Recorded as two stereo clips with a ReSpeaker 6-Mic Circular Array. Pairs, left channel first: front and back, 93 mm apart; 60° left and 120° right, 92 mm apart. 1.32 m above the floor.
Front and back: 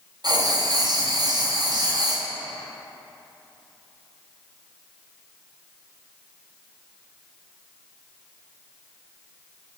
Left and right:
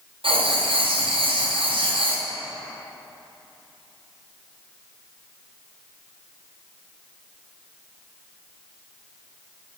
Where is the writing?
140° right, 0.7 m.